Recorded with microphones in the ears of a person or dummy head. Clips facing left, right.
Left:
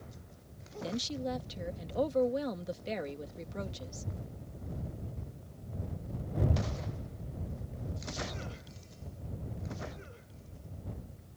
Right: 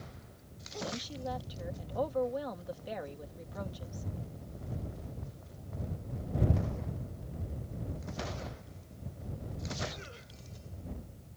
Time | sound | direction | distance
0.8 | a woman speaking | 30° left (ahead or behind) | ?